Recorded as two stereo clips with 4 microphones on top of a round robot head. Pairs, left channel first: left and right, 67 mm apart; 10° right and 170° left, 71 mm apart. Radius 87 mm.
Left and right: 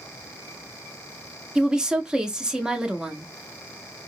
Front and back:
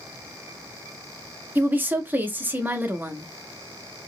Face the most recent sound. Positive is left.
turn(degrees=-155)